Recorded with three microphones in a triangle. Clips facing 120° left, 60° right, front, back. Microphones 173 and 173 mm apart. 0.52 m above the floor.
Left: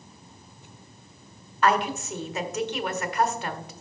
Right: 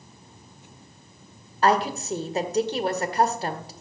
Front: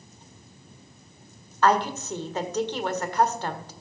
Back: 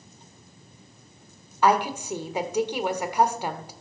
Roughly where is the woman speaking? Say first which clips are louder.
Right 2 dB, even; right.